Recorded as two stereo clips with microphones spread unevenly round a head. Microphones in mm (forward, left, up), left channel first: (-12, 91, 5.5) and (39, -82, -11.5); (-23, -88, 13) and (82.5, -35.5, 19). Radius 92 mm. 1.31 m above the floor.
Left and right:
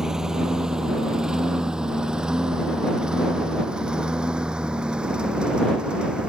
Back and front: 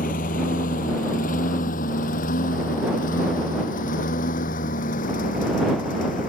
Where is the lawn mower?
160° right.